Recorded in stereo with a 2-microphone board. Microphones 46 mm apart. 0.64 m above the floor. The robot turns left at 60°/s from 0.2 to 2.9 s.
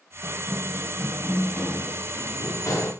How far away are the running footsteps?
About 7.5 m.